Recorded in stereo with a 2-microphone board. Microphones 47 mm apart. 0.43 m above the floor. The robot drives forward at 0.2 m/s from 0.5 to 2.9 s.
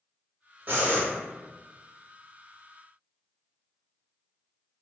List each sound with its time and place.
0.7 s breathing: 40° right (ahead or behind), 0.7 m